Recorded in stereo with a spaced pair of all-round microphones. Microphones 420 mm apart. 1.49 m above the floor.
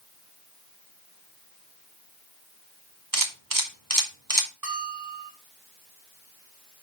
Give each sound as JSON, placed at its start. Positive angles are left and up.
{"t": 3.1, "sound": "a camera shutter", "side_deg": -50, "distance_m": 1.7}
{"t": 4.6, "sound": "a bell", "side_deg": -55, "distance_m": 4.0}